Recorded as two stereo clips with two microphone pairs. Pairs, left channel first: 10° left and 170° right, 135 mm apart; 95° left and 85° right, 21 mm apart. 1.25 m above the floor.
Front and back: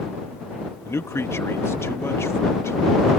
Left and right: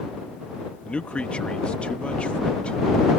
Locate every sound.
0.8 s a man speaking: 85° left